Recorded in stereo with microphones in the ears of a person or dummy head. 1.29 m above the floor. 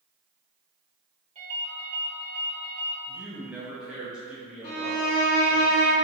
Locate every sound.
1.4 s a ringtone: 40° right (ahead or behind), 1.6 m
3.1 s a man speaking: 5° right (ahead or behind), 0.7 m
4.6 s a violin: 55° left (ahead or behind), 0.7 m